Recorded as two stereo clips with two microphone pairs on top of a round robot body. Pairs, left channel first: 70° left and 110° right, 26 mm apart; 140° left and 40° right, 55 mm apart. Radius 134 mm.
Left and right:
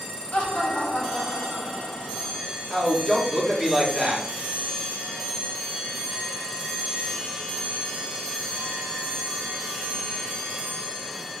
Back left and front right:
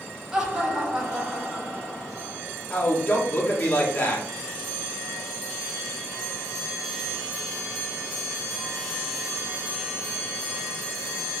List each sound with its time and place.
0.3 s laughter: 35° left, 1.7 m
2.7 s a man speaking: straight behind, 1.8 m